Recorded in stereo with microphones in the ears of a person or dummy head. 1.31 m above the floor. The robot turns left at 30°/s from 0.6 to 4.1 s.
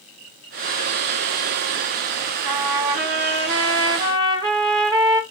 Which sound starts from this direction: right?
A trumpet, at 2.5 s.